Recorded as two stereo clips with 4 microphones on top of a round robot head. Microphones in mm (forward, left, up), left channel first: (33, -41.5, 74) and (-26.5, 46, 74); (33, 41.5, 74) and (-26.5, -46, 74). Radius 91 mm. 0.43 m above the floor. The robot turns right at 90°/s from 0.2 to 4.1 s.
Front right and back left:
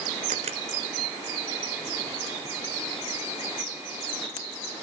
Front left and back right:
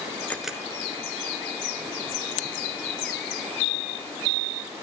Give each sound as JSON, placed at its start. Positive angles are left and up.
{"t": 0.3, "sound": "a camera shutter", "azimuth_deg": 135, "distance_m": 1.0}